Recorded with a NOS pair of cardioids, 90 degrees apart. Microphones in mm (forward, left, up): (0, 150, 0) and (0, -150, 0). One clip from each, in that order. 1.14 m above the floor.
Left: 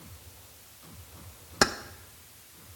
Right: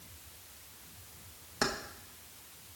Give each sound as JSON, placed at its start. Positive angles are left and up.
{"t": 1.6, "sound": "keys jangling", "azimuth_deg": 45, "distance_m": 0.8}